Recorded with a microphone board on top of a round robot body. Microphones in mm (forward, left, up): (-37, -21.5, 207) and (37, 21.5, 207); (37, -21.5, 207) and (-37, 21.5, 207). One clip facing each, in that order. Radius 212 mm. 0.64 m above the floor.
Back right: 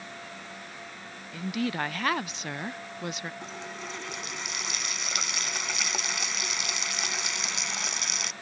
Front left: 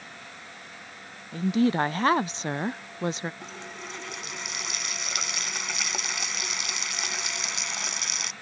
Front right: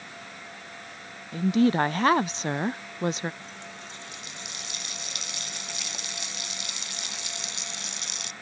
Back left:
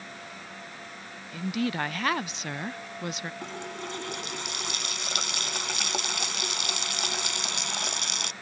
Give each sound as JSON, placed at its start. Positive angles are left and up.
{"t": 1.3, "sound": "a woman speaking", "azimuth_deg": 0}
{"t": 3.4, "sound": "a running tap", "azimuth_deg": 120}